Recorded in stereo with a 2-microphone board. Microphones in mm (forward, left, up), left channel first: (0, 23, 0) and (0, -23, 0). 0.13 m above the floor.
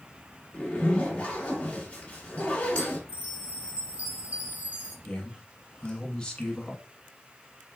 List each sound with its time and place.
0.5 s a zipper: 25° left (ahead or behind), 1.4 m
3.1 s a chime: 35° right (ahead or behind), 1.0 m
5.0 s a man speaking: 20° left (ahead or behind), 1.0 m